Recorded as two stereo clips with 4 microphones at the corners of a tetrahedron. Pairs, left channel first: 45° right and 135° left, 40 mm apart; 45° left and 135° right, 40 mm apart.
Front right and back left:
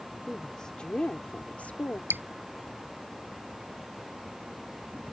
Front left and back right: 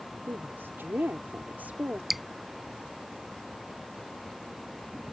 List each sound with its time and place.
0.3 s a woman speaking: 120° right; by 2.0 s 85° right
2.1 s dripping: 140° left